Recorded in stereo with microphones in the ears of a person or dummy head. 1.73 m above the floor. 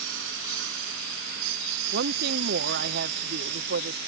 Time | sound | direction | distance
0.0 | a lawn mower | 60° right (ahead or behind) | ?
1.9 | a woman speaking | 50° right (ahead or behind) | ?